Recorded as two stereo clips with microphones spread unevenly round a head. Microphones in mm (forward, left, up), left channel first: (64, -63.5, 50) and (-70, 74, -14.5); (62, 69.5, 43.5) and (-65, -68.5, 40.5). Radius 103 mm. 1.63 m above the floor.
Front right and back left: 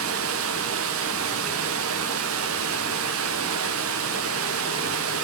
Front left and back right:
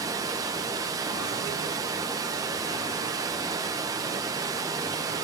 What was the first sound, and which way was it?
Running water, 155° left.